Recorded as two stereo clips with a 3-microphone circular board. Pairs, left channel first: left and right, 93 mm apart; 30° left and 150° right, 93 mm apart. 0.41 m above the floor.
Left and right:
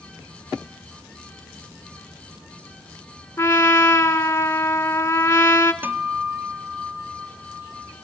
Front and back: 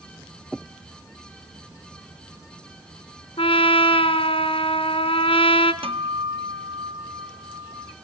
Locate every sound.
3.4 s a trumpet: 25° left, 1.2 m
5.8 s a guitar: 160° right, 1.0 m